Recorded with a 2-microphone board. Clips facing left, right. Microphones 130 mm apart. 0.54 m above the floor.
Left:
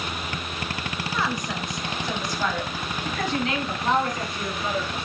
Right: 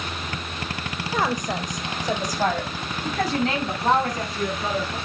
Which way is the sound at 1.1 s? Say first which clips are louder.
Right 5 dB; 45° right (ahead or behind).